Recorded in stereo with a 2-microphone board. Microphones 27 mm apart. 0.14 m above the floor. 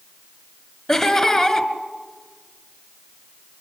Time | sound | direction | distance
0.9 | laughter | 20° left (ahead or behind) | 1.8 m